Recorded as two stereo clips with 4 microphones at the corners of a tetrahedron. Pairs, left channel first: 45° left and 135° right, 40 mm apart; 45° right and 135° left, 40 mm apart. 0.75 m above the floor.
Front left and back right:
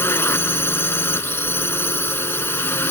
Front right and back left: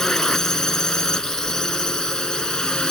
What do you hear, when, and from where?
0.0 s a drone: 30° left; by 2.9 s 25° left